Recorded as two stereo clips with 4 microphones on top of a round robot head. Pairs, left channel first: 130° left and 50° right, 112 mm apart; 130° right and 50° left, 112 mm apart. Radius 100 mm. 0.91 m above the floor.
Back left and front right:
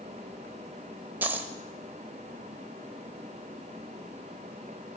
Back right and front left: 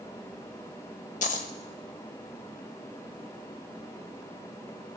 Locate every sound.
1.2 s a dropped coin: 125° right, 1.4 m